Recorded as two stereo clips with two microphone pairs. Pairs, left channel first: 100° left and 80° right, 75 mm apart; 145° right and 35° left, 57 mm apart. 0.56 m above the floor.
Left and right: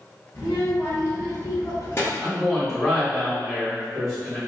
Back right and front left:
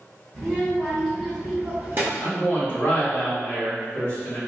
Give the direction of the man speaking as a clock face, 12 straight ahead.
6 o'clock.